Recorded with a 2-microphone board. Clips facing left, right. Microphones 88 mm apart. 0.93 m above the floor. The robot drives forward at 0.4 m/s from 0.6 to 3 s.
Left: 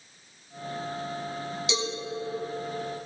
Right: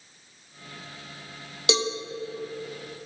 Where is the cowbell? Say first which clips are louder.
Right 6 dB; 65° right (ahead or behind), 1.2 m; by 1.9 s 60° right (ahead or behind), 1.2 m.